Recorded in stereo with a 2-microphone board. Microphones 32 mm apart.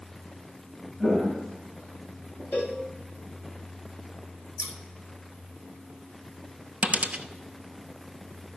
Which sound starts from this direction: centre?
Footsteps, at 1.0 s.